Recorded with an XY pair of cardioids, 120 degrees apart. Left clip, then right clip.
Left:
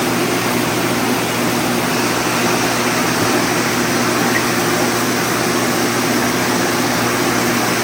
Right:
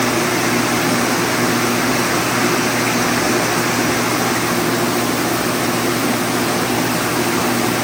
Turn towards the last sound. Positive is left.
No sound to turn to.